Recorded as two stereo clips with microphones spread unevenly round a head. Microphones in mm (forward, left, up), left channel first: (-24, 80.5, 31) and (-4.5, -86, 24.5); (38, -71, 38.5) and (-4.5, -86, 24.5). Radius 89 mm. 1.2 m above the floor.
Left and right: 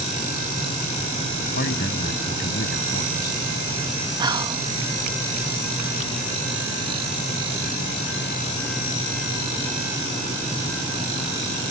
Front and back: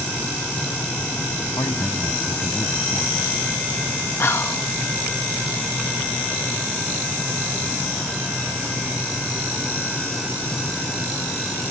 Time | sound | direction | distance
1.6 | a man speaking | 60° left | ?
4.2 | whispering | 15° right | ?